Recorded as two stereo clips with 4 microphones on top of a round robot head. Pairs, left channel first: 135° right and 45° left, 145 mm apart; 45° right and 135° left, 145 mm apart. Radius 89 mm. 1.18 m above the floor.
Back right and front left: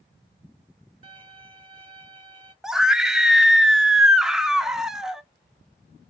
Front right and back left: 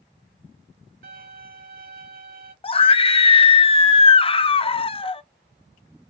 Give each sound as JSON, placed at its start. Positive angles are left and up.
{"t": 1.0, "sound": "a violin", "azimuth_deg": 100, "distance_m": 2.0}
{"t": 2.6, "sound": "a scream", "azimuth_deg": -40, "distance_m": 0.7}